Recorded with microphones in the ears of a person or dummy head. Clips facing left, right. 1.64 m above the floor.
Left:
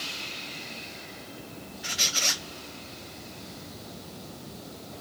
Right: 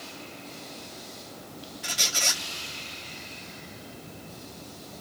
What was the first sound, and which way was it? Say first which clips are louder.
A squeak: right 1 dB; 45° right (ahead or behind).